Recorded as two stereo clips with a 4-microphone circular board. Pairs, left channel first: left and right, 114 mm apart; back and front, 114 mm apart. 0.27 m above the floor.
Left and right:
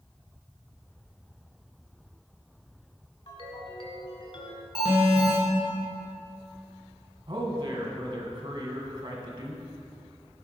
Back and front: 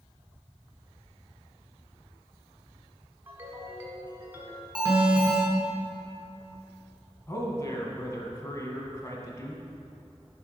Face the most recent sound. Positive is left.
turn(degrees=-120)